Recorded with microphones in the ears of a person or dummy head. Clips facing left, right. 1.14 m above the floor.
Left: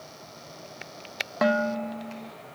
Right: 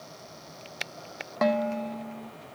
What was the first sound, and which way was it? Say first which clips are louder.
Dishes clattering: left 1 dB; 10° left (ahead or behind).